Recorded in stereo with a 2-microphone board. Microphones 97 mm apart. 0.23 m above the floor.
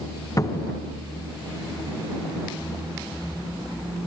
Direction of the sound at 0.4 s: 35° left (ahead or behind).